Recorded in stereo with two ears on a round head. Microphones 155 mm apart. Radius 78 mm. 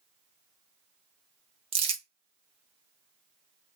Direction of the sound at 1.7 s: 35° right (ahead or behind).